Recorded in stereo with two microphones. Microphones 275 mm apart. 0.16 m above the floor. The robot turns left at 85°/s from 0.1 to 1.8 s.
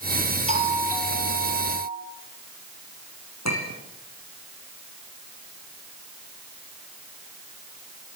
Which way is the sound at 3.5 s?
70° left (ahead or behind).